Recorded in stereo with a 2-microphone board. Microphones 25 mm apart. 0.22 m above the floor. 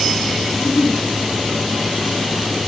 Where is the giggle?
60° left (ahead or behind), 5.5 m.